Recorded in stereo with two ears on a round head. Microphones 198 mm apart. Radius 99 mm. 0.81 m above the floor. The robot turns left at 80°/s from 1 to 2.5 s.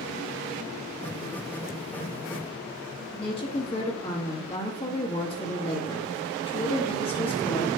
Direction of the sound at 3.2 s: 25° left (ahead or behind).